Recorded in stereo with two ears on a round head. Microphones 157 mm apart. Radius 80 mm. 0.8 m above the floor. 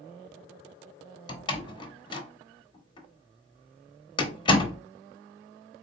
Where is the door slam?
30° left (ahead or behind), 0.8 m.